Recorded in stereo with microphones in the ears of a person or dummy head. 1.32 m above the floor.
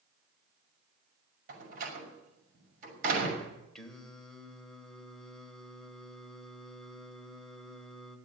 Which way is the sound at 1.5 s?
50° right (ahead or behind).